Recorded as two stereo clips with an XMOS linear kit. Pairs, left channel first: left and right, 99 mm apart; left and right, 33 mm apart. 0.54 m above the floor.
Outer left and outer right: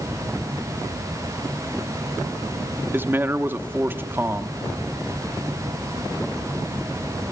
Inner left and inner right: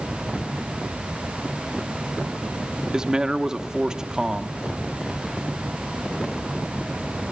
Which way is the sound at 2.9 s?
20° right (ahead or behind).